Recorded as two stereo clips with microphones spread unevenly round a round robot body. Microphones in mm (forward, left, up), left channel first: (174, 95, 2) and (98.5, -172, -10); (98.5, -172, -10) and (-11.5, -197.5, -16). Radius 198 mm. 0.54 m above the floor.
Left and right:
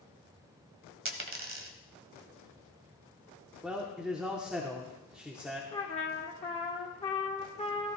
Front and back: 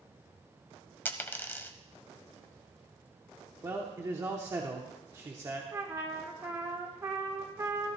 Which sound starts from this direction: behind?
A man speaking, at 3.6 s.